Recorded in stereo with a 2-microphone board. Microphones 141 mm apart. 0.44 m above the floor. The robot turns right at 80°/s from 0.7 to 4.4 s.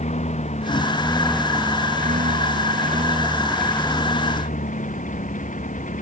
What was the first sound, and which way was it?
A lawn mower, 125° left.